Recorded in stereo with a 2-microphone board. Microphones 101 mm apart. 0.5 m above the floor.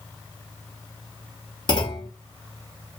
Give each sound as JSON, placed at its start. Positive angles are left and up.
{"t": 1.7, "sound": "a clunk", "side_deg": 45, "distance_m": 0.9}